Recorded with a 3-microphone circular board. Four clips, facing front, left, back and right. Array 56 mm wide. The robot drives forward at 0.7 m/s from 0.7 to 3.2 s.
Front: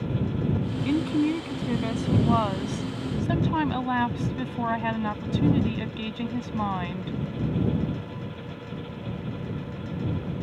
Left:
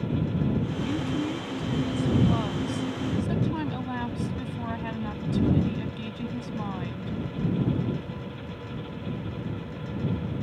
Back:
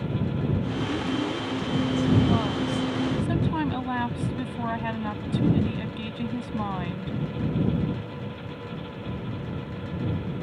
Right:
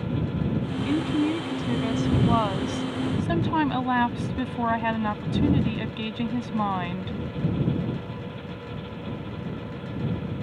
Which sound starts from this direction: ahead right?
A woman speaking, at 0.8 s.